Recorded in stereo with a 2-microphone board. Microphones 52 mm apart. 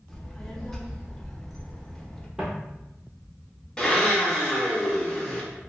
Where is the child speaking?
5° left (ahead or behind), 0.5 m.